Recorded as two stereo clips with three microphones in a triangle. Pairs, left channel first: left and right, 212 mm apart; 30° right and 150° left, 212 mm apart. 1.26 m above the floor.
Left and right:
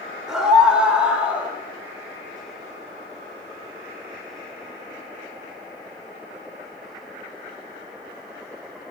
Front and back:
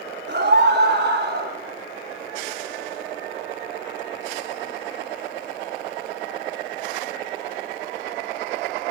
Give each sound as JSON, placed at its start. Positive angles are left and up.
{"t": 0.3, "sound": "a scream", "azimuth_deg": -175, "distance_m": 4.0}